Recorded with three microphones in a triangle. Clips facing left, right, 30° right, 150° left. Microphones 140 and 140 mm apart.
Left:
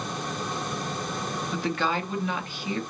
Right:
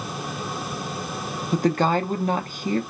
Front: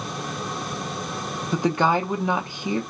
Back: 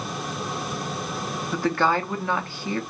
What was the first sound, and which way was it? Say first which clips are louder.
A woman speaking: right 8 dB, front 2 dB; 95° right.